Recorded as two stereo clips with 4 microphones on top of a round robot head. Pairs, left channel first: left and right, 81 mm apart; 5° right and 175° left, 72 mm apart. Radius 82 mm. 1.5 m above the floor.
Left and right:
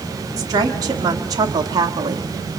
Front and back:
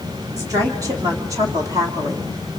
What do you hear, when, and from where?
0.4 s a woman speaking: 130° right, 3 m